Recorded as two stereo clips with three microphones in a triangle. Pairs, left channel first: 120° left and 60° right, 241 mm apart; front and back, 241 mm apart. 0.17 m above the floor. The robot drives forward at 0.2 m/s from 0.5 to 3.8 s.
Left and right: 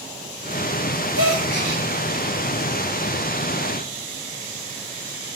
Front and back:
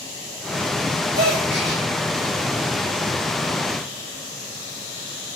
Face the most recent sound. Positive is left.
turn(degrees=160)